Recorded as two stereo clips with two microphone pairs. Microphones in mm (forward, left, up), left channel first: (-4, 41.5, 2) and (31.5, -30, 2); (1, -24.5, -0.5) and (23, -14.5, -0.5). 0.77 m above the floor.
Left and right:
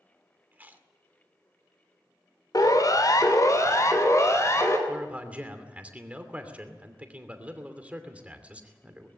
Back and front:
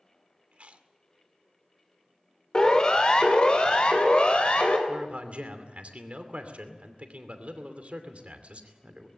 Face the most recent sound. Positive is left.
turn(degrees=10)